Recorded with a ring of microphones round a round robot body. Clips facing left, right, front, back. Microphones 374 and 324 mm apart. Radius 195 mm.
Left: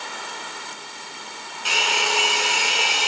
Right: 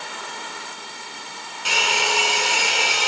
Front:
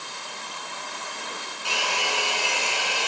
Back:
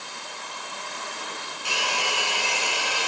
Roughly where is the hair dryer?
Right.